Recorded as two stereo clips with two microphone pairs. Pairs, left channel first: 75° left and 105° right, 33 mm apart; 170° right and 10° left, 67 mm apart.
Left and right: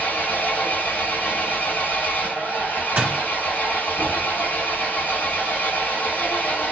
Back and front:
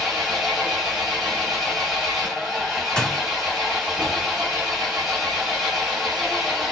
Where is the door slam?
95° right, 0.9 m.